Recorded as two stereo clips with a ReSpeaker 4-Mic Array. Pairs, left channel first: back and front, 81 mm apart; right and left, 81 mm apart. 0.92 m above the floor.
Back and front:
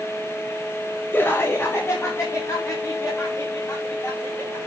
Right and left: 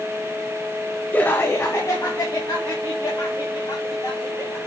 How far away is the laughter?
About 0.9 m.